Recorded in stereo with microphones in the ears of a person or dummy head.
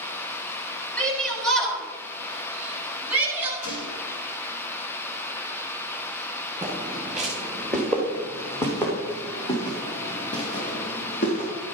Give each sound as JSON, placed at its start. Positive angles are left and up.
{"t": 1.0, "sound": "a shout", "side_deg": 5, "distance_m": 7.0}
{"t": 3.6, "sound": "a gunshot", "side_deg": 65, "distance_m": 3.5}
{"t": 6.6, "sound": "footsteps", "side_deg": -15, "distance_m": 5.0}